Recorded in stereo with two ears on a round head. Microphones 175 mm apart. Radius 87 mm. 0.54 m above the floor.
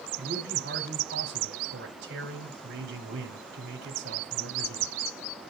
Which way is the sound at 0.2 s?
55° right (ahead or behind).